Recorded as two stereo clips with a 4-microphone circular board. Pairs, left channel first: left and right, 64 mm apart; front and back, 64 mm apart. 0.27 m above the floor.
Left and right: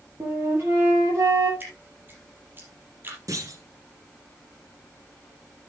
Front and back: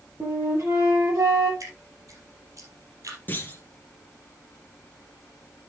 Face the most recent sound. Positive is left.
turn(degrees=-60)